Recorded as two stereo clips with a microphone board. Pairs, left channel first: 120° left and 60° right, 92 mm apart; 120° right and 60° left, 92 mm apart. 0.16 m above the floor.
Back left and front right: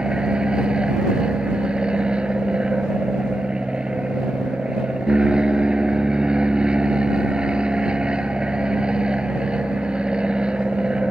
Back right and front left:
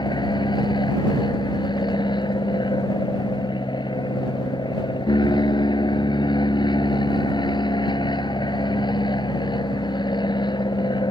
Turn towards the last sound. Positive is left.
turn(degrees=-140)